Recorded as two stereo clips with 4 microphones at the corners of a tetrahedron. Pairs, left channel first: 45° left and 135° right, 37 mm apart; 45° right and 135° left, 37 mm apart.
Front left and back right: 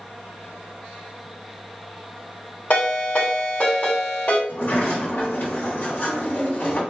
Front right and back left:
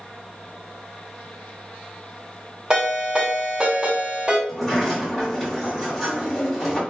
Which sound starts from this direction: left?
A ringtone, at 2.7 s.